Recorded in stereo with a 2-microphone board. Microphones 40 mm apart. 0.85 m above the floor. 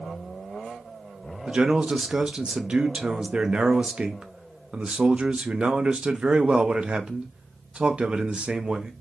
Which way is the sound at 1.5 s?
30° right (ahead or behind).